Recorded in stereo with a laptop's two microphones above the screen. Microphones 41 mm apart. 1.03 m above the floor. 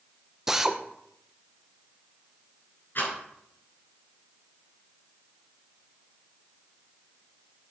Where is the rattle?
50° left (ahead or behind), 7 m.